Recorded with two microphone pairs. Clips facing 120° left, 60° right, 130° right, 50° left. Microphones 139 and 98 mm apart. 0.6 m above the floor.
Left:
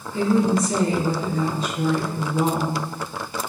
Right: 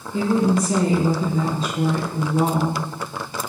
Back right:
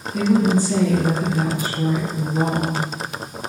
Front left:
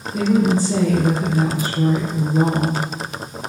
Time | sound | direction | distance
0.1 | a woman speaking | 15° right | 1.4 m